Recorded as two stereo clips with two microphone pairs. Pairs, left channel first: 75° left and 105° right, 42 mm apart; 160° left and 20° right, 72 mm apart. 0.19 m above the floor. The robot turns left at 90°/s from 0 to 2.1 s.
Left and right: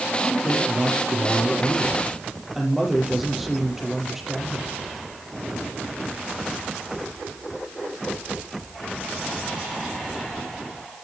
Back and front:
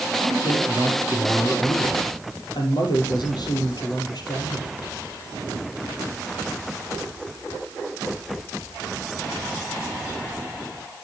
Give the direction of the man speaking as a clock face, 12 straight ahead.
1 o'clock.